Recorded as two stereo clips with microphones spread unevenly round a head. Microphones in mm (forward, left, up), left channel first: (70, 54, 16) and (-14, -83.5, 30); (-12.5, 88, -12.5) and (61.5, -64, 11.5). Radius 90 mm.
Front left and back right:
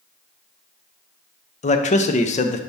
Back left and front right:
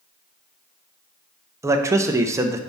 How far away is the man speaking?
About 0.7 m.